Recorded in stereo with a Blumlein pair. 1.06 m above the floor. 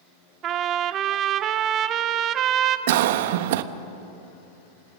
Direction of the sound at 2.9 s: 55° right.